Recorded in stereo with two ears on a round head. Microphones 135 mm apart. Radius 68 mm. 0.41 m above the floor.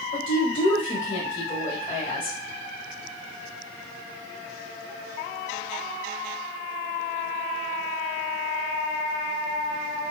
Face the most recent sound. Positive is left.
turn(degrees=10)  # may be behind; listen again after turning